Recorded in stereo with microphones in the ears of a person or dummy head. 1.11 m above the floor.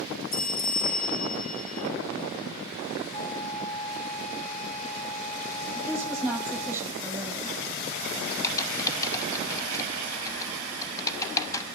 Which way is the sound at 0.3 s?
45° left (ahead or behind).